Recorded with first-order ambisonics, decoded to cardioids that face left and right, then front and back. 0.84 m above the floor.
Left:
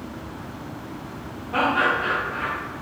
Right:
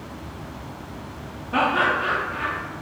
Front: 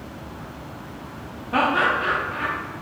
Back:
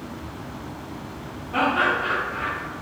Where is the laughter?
20° right, 0.5 m.